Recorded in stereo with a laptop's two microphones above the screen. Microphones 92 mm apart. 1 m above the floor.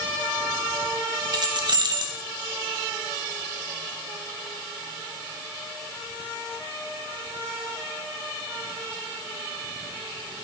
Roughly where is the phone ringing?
No phone ringing in this recording.